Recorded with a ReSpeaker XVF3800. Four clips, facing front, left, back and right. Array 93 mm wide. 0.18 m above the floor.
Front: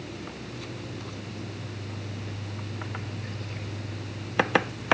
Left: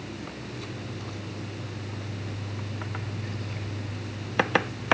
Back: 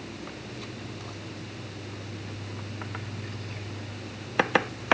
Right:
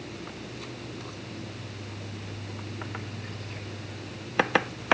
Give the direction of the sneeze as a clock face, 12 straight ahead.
I don't hear a sneeze.